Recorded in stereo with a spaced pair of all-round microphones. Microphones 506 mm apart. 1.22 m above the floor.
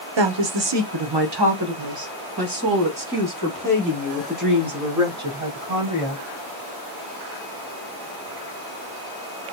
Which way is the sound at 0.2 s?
55° right (ahead or behind).